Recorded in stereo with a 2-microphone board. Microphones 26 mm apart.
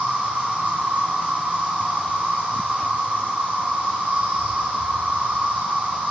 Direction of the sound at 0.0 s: 55° right (ahead or behind).